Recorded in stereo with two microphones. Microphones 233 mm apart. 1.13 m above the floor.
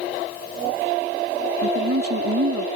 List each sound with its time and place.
1.6 s a woman speaking: 80° right